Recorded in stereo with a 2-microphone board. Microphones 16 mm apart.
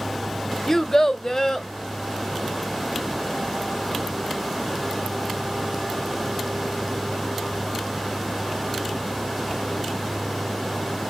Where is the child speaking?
25° left (ahead or behind), 0.7 m; by 1.7 s 30° left (ahead or behind), 1.2 m.